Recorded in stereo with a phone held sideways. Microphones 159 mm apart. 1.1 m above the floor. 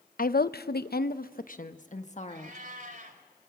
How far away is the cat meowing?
About 2.5 m.